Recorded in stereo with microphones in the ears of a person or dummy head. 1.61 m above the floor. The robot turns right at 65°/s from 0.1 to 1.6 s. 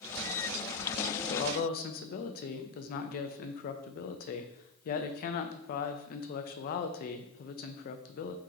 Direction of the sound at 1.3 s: 70° left (ahead or behind).